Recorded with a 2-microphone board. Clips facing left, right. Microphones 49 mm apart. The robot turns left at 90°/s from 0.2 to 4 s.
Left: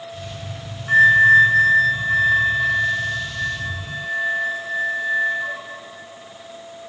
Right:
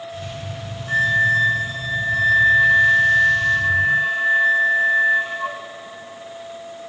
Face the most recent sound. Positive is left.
turn(degrees=-120)